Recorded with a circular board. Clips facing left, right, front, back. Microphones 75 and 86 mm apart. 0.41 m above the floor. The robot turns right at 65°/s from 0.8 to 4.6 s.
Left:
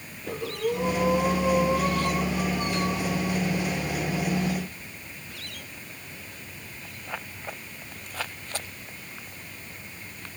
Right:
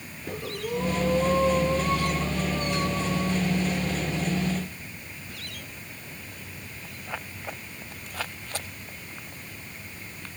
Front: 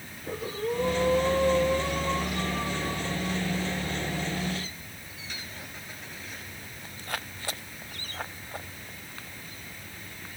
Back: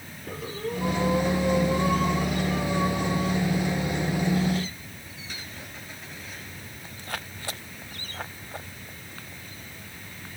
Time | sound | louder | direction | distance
0.3 | breathing | left 4 dB, front 2 dB | 70° left | 6.5 m